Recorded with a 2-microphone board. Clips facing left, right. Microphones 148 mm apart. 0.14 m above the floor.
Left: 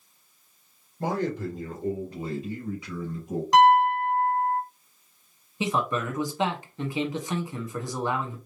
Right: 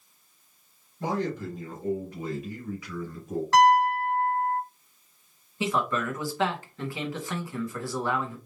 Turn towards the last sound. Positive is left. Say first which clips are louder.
# even
turn(degrees=20)  # may be behind; listen again after turning